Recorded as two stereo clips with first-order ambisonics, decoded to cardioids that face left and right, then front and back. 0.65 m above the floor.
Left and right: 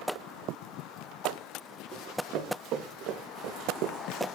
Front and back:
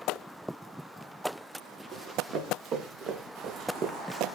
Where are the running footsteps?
135° right, 4 m; by 4.2 s 120° right, 1.4 m.